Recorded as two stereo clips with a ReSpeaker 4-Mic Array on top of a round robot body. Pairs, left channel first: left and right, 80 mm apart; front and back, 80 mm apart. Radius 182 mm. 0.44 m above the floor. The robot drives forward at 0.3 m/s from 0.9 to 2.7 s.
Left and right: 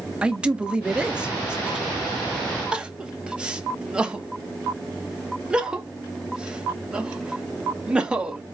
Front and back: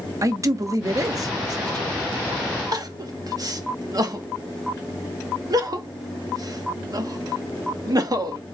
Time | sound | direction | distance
0.2 | a man speaking | 160° right | 1.1 m
2.7 | crying | 165° right | 1.1 m